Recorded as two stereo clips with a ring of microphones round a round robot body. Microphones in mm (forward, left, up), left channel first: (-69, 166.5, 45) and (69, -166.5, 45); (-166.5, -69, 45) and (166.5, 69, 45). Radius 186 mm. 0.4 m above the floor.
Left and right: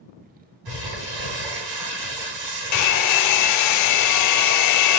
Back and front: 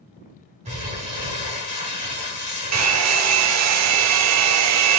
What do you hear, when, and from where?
0.7 s crumpling: 50° right, 3.5 m
2.7 s a hair dryer: 70° left, 0.7 m